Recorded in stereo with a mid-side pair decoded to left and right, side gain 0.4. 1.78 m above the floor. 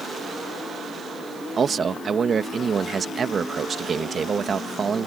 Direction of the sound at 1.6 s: 50° right.